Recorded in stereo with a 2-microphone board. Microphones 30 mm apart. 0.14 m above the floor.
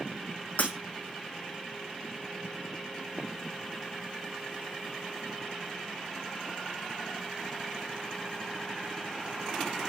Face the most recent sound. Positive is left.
turn(degrees=60)  # may be behind; listen again after turning